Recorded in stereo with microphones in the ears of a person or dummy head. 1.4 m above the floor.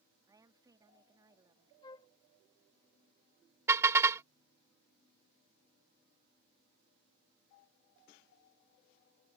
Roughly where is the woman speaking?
Centre.